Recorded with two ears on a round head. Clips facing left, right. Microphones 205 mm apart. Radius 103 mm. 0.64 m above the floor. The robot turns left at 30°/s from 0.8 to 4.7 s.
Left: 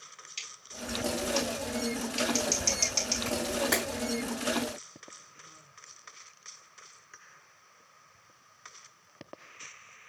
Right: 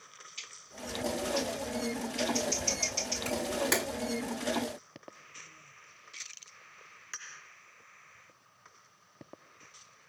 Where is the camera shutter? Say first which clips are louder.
Left 1 dB; 15° right (ahead or behind), 1.9 m; by 3.8 s 30° right (ahead or behind), 1.9 m.